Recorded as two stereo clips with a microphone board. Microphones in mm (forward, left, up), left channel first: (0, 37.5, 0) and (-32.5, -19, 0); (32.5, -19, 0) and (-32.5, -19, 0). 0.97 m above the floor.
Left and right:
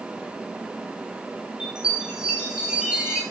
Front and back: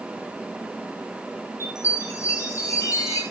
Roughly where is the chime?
Ahead right.